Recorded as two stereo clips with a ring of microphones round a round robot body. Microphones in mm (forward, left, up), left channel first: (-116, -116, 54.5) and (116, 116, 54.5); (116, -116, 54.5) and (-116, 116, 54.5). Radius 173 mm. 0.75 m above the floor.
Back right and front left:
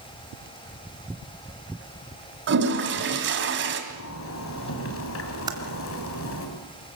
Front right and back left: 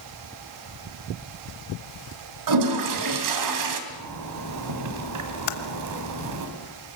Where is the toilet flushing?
105° left, 2.5 m.